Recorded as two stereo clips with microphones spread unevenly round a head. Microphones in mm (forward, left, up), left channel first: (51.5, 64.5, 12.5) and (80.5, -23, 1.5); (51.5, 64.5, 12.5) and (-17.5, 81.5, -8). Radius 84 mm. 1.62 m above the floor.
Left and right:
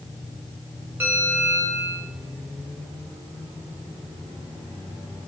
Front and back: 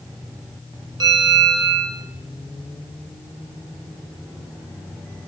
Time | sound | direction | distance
1.0 | a bell | 150° right | 0.7 m